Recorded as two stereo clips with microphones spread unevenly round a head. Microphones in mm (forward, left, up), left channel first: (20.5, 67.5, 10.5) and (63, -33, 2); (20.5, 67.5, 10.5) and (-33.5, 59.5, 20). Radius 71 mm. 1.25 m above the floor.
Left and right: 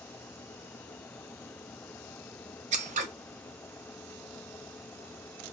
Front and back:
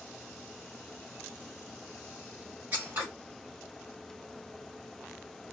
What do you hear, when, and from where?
2.7 s scissors: 95° right, 0.5 m